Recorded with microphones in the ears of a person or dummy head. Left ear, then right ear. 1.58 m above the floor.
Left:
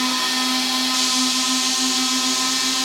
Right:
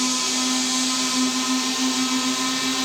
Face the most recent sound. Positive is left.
turn(degrees=30)  # may be behind; listen again after turning